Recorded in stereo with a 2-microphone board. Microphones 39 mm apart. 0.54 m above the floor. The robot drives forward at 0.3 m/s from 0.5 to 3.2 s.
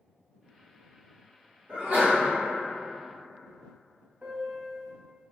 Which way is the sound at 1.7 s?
40° right (ahead or behind).